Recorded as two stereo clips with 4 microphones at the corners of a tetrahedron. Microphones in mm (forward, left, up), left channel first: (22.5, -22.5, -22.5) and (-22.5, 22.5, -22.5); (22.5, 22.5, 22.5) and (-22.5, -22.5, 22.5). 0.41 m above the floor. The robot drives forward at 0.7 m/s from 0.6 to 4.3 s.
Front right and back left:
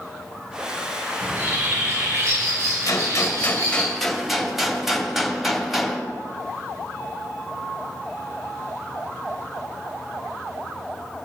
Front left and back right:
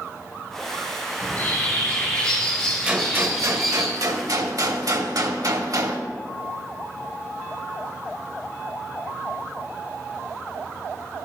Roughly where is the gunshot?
Ahead right.